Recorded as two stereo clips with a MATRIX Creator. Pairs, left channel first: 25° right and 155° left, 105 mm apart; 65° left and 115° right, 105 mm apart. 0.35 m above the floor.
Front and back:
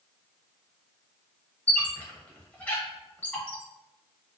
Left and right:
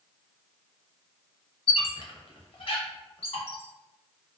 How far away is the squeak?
About 0.6 m.